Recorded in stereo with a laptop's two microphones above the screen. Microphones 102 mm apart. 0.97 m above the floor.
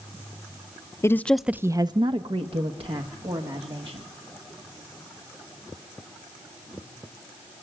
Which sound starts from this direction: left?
A woman speaking, at 1.0 s.